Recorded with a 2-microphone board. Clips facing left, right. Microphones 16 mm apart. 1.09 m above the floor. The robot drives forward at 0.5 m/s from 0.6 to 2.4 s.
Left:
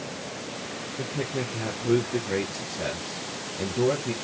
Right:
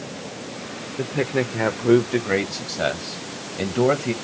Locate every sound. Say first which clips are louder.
1.0 s a man speaking: right 8 dB; 55° right (ahead or behind), 0.6 m; by 4.1 s 50° right (ahead or behind), 0.6 m